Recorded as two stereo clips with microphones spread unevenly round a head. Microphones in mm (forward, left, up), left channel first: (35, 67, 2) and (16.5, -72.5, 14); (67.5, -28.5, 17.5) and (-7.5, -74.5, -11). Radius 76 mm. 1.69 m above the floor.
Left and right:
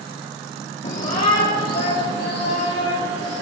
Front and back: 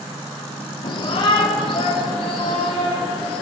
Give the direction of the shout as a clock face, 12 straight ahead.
11 o'clock.